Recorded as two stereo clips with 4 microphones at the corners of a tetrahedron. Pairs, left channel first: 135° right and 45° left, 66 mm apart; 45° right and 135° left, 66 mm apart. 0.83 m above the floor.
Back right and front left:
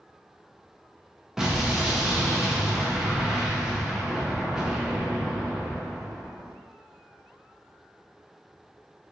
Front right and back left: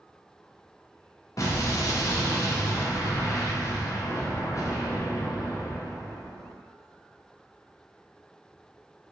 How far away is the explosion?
About 0.6 m.